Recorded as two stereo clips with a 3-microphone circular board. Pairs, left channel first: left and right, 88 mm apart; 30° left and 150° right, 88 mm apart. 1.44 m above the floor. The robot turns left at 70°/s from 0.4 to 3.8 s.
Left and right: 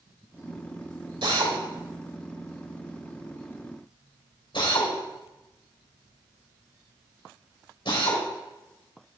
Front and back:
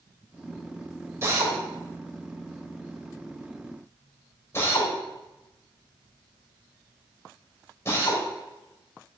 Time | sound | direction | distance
1.2 | a drill | 90° right | 3 m